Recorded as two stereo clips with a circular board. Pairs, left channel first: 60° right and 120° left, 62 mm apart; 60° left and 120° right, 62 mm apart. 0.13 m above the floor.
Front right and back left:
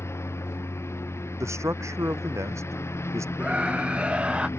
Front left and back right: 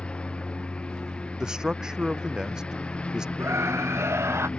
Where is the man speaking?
160° left.